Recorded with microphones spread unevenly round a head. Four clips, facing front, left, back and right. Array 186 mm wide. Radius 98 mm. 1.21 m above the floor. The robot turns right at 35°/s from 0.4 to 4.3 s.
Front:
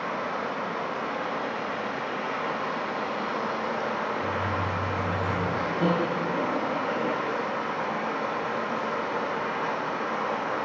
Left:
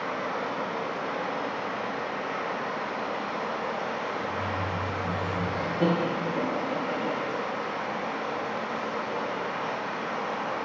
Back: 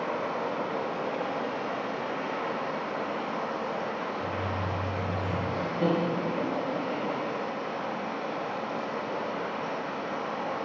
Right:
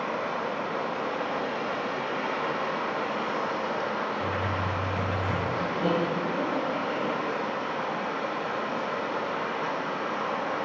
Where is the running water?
160° right, 1.9 m; by 10.7 s 25° right, 1.9 m.